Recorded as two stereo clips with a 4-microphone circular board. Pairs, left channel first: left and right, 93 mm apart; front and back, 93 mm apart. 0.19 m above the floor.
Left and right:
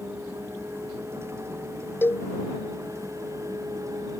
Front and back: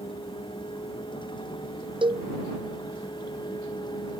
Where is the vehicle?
25° right; by 4.2 s 35° right.